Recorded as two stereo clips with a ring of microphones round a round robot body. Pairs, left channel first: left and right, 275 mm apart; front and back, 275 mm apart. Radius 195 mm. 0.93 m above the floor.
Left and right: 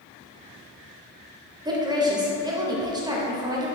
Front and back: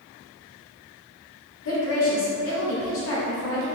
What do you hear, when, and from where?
1.6 s a woman speaking: 15° right, 0.7 m